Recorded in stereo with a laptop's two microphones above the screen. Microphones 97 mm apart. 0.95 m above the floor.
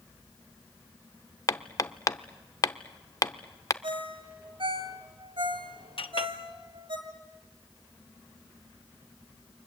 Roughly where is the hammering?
Left.